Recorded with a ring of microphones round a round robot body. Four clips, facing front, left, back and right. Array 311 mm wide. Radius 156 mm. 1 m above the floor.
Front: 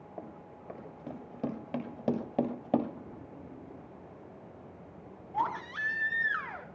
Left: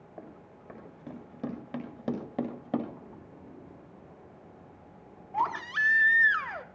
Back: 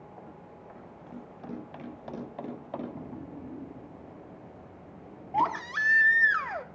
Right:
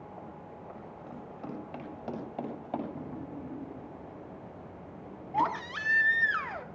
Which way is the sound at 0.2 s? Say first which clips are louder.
Right 3 dB, front 1 dB; 40° left.